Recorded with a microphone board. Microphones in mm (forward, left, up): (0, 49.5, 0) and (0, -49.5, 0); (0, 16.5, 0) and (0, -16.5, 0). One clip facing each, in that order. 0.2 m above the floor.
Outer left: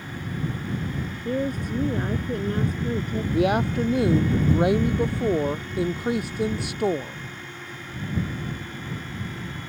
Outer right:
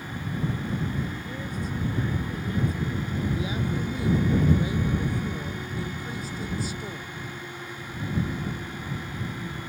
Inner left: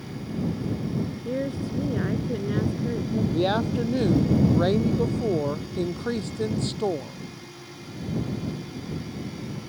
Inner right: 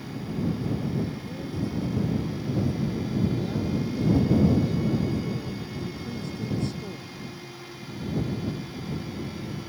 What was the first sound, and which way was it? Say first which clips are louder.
A woman speaking: outer left 7 dB, inner left 4 dB; 60° left (ahead or behind).